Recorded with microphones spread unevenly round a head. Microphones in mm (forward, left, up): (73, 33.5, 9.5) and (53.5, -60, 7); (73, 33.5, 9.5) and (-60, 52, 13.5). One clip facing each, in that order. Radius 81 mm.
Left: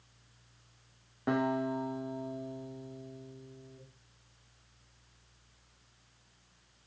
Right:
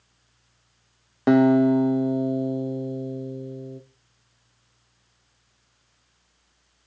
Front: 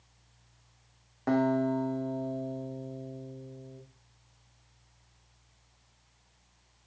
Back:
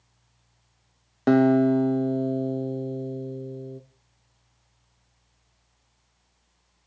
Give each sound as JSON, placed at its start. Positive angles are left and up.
{"t": 1.3, "sound": "a guitar", "azimuth_deg": -145, "distance_m": 0.7}